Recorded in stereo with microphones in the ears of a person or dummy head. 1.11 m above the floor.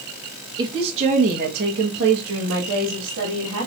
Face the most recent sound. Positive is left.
turn(degrees=-70)  # may be behind; listen again after turning